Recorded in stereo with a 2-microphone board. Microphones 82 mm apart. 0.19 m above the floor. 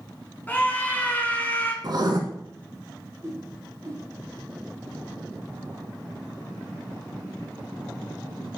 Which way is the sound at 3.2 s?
30° right (ahead or behind).